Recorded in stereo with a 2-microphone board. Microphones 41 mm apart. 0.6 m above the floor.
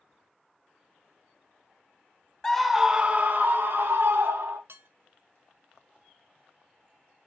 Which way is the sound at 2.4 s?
15° left (ahead or behind).